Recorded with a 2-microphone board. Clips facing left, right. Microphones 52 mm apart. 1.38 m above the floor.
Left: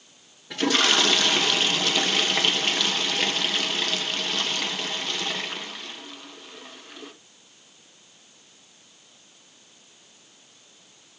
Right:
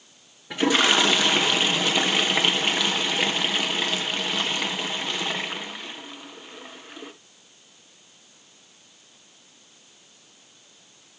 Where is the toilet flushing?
15° right (ahead or behind), 1.2 m.